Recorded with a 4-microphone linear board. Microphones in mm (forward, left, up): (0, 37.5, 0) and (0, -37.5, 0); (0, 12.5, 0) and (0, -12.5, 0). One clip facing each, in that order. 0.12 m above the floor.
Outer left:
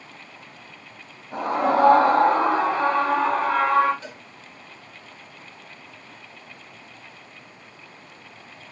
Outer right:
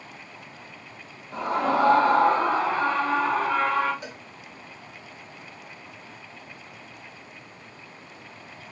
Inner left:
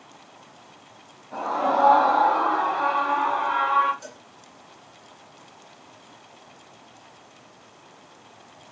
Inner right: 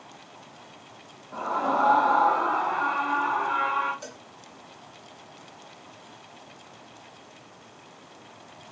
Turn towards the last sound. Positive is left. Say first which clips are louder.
# even, even
turn(degrees=-15)  # may be behind; listen again after turning